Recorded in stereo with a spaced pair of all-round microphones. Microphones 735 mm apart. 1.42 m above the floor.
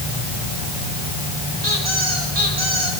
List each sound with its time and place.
1.6 s a squeak: 50° right (ahead or behind), 6.5 m